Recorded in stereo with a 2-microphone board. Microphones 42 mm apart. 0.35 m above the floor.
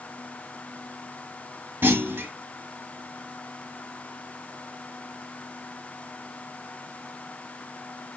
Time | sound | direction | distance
1.8 | a clunk | 60° right (ahead or behind) | 0.8 m